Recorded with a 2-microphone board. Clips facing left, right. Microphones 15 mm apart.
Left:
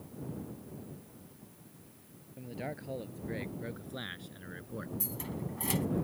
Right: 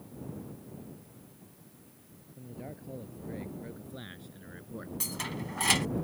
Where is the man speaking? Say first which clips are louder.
Left 4 dB; 40° left (ahead or behind); by 4.9 s 5° left (ahead or behind).